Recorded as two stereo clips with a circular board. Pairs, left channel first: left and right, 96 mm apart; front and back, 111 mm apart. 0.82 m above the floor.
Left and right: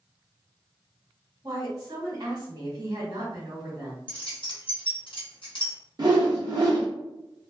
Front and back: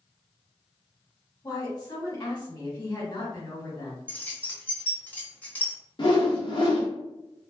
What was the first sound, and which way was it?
A woman speaking, 50° right.